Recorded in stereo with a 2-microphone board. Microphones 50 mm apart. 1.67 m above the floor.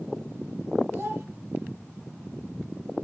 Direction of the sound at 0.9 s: 50° right (ahead or behind).